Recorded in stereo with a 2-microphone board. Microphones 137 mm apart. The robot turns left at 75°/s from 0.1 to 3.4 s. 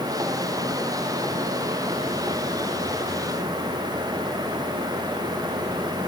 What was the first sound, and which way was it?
Only background noise.